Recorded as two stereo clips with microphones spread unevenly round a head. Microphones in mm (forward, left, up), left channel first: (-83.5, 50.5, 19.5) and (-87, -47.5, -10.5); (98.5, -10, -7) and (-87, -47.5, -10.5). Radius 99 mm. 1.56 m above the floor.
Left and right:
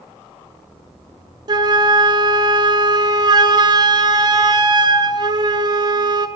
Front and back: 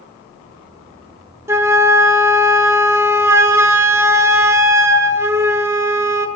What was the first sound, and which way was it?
A flute, 110° right.